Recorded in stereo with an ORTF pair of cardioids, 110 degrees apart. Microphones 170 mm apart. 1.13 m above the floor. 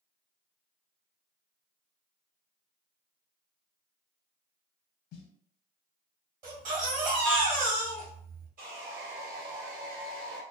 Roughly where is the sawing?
Ahead right.